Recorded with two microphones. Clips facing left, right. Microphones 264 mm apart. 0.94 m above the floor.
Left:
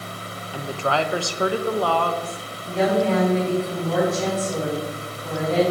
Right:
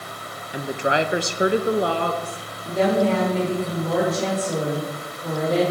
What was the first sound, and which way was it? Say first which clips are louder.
A woman speaking: right 2 dB; 15° right (ahead or behind).